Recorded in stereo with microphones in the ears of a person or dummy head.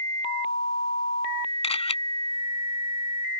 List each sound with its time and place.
1.6 s a camera shutter: 35° left (ahead or behind)